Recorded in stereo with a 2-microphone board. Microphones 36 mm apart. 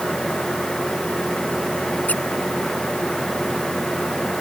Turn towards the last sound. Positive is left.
turn(degrees=45)  # may be behind; listen again after turning